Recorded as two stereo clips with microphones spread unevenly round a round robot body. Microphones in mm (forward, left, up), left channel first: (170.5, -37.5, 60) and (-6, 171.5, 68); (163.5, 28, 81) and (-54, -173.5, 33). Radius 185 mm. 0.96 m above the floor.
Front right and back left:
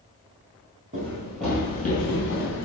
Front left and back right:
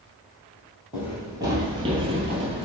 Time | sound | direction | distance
0.9 | running footsteps | 120° left | 1.0 m